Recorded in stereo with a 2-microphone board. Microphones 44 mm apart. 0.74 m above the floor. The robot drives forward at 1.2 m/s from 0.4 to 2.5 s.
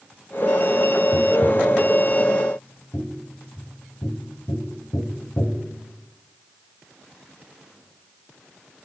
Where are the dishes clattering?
No dishes clattering in this recording.